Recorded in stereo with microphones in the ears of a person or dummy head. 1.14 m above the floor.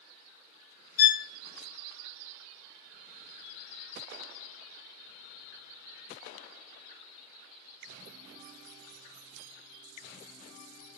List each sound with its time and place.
1.0 s a violin: 65° left (ahead or behind), 0.7 m